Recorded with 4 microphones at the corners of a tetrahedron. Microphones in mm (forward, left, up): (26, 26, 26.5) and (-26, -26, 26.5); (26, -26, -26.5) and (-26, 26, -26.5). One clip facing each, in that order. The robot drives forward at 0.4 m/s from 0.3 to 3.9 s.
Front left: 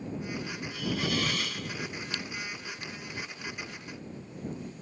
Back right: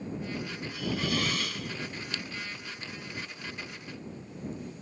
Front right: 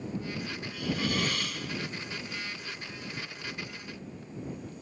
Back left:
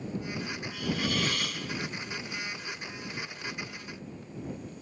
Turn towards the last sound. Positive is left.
turn(degrees=-130)